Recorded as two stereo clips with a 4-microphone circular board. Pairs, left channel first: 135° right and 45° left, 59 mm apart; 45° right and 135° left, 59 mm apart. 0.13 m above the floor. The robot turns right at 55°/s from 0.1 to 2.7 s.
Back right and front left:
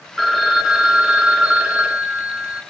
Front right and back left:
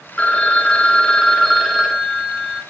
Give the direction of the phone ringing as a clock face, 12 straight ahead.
2 o'clock.